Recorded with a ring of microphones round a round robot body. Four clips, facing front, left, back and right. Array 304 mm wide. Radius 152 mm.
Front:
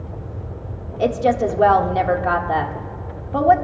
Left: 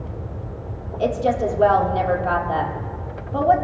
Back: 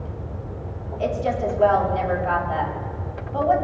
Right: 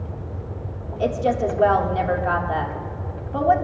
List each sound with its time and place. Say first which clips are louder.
1.0 s a woman speaking: left 1 dB, front 6 dB; 5° left, 1.4 m